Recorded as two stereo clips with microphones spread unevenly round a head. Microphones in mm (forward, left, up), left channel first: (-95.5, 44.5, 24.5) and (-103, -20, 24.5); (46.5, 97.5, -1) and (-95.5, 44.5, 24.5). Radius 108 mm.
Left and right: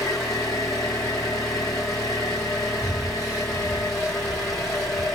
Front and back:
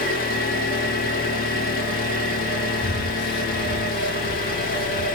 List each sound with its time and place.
0.0 s an engine running: 40° left, 1.4 m
2.8 s breathing: 20° right, 1.6 m